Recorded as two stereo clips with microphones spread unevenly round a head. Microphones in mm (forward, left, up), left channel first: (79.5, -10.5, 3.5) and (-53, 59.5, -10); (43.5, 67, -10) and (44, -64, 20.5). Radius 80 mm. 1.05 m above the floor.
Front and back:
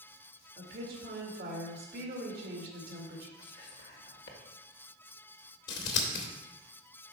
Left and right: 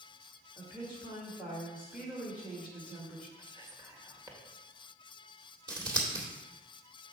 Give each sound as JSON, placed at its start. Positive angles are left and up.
{"t": 0.6, "sound": "a woman speaking", "azimuth_deg": -175, "distance_m": 1.7}
{"t": 3.4, "sound": "whispering", "azimuth_deg": -20, "distance_m": 1.7}
{"t": 5.7, "sound": "scissors", "azimuth_deg": -30, "distance_m": 2.0}